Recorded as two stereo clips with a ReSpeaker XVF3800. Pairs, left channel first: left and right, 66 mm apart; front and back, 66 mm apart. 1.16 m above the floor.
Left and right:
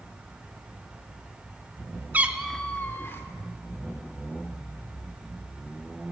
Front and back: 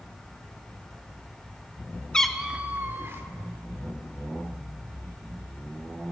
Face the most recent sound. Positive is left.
turn(degrees=135)